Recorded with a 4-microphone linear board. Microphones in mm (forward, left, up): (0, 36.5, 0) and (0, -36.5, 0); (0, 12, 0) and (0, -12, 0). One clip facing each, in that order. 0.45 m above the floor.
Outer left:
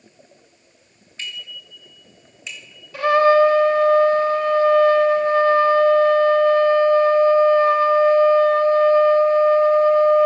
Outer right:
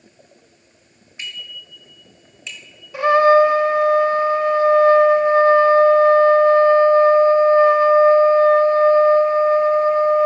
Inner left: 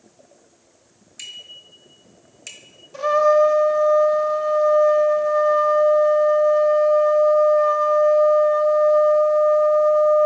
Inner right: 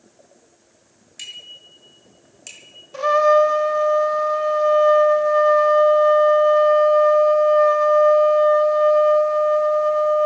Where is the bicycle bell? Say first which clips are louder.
Even, inner right 1 dB; 15° right (ahead or behind), 5 m; by 2.8 s 15° left (ahead or behind), 4 m.